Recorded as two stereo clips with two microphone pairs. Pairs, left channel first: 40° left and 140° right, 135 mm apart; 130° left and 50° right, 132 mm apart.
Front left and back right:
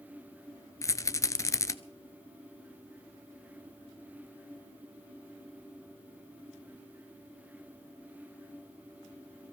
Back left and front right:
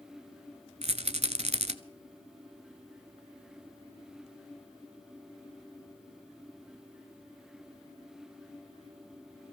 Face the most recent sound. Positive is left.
turn(degrees=-20)